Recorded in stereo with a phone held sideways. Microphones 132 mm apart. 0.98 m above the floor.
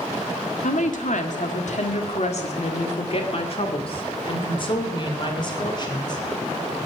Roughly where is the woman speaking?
Left.